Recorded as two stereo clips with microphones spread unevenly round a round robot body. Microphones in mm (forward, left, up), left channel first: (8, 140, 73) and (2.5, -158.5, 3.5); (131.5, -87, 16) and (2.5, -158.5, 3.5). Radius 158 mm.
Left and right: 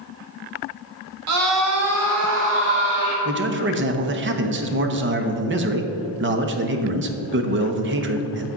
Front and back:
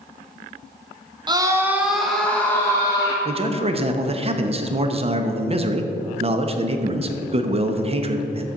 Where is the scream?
95° right, 1.8 m; by 3.1 s 40° right, 3.5 m.